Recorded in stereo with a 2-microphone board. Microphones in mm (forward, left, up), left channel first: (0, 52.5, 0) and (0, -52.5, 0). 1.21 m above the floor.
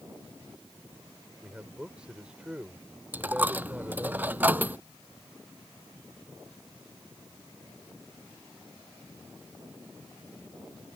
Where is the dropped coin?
15° right (ahead or behind).